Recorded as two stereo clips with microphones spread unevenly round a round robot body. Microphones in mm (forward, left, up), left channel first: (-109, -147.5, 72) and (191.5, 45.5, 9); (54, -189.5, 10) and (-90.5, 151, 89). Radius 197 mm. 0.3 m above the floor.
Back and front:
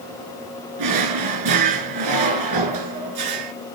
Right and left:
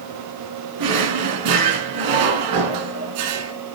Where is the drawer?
75° left, 1.7 m.